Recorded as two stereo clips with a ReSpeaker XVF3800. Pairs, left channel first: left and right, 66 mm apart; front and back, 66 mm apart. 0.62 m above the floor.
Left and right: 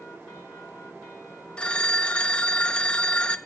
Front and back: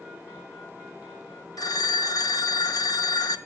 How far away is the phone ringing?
About 0.6 m.